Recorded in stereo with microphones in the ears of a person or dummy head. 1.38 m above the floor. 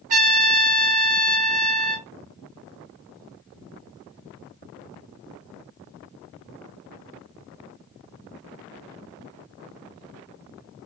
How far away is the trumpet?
About 1.2 m.